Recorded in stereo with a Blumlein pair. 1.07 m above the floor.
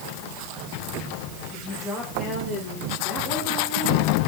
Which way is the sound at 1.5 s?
10° left.